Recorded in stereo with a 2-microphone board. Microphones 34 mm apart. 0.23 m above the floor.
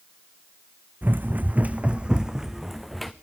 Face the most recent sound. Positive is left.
turn(degrees=5)  # may be behind; listen again after turning